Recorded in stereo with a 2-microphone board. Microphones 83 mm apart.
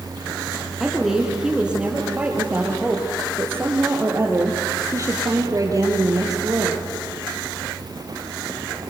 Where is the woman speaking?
5° right (ahead or behind), 4 m; by 6.8 s 50° right (ahead or behind), 4 m.